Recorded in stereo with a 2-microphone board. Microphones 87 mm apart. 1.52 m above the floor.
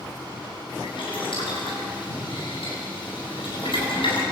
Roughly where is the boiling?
Left.